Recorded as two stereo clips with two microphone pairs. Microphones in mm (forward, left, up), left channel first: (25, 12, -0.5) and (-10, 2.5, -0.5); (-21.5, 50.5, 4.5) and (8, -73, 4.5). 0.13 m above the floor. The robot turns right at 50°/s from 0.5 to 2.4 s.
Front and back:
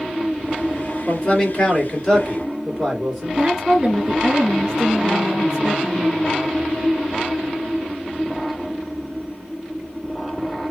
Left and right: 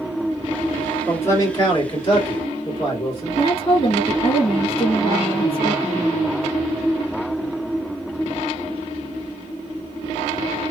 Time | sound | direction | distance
1.1 | a man speaking | 30° left | 2 m
3.4 | a woman speaking | 130° left | 1.8 m